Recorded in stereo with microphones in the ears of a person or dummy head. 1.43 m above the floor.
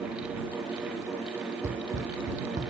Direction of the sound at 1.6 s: 40° right (ahead or behind).